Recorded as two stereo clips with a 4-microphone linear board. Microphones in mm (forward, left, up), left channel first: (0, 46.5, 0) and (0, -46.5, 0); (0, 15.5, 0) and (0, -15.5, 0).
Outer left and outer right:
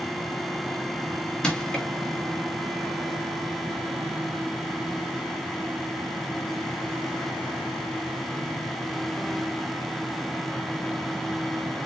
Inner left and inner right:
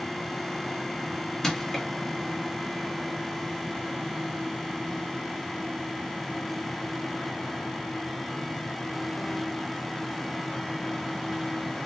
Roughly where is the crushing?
Centre.